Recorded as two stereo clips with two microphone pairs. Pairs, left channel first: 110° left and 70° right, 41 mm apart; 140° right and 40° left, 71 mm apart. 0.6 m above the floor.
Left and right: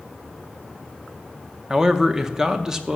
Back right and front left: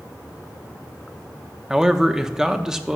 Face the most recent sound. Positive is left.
turn(degrees=-25)